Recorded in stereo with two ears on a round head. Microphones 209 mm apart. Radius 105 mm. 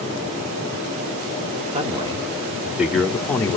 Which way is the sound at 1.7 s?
25° right (ahead or behind).